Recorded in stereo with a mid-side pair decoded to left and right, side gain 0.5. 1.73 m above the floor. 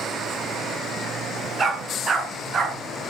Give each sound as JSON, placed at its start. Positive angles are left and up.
{"t": 1.6, "sound": "a dog barking", "azimuth_deg": -35, "distance_m": 6.0}